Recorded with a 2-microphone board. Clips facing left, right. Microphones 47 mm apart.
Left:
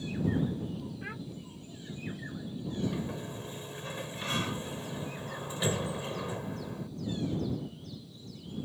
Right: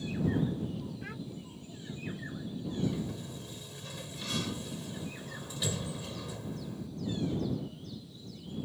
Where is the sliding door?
30° left (ahead or behind).